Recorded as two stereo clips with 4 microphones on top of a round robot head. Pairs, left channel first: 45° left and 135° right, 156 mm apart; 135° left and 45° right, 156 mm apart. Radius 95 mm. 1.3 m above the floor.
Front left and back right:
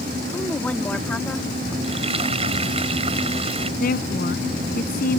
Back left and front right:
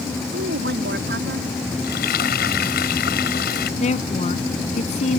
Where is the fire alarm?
I don't hear a fire alarm.